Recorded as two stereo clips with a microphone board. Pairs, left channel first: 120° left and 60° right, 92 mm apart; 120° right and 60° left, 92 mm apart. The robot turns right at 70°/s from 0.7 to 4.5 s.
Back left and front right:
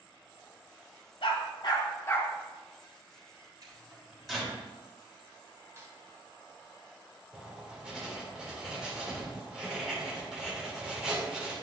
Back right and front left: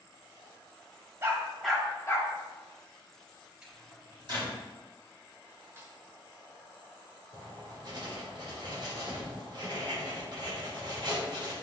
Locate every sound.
1.2 s a dog barking: 120° left, 1.6 m; by 2.3 s 165° right, 1.6 m
3.6 s a microwave: 20° right, 3.5 m; by 4.5 s 45° left, 3.5 m
5.8 s a snare drum: straight ahead, 1.4 m
7.3 s writing: 25° left, 2 m